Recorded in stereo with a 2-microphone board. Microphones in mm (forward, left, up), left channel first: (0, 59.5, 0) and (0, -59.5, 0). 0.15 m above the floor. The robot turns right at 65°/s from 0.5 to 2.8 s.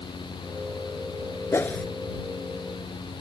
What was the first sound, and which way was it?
A whoosh, 25° left (ahead or behind).